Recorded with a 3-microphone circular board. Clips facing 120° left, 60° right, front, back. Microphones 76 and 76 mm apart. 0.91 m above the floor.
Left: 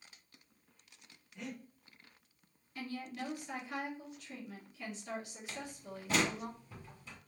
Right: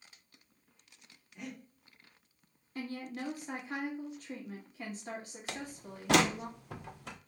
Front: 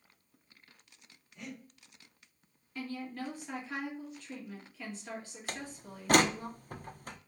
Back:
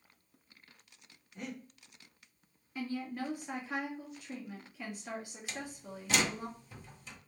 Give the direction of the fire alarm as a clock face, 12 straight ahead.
I don't hear a fire alarm.